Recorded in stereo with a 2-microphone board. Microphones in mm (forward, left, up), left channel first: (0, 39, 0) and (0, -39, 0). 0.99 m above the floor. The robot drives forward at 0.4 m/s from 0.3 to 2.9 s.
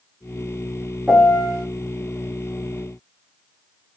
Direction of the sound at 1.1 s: 10° left (ahead or behind).